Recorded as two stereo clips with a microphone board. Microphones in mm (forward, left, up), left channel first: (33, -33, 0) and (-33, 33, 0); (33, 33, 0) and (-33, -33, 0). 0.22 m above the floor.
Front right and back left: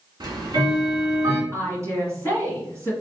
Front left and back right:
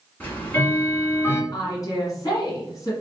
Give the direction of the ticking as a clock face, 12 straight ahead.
8 o'clock.